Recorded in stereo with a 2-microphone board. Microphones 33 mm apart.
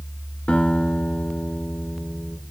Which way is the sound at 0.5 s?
40° left (ahead or behind).